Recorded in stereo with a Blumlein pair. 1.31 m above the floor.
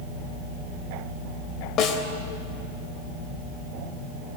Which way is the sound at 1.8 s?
30° left.